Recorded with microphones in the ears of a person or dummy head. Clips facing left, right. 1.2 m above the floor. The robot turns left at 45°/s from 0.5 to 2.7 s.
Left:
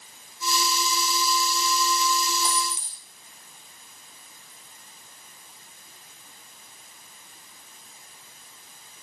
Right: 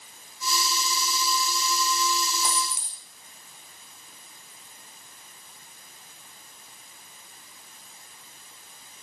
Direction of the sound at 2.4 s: 55° right (ahead or behind).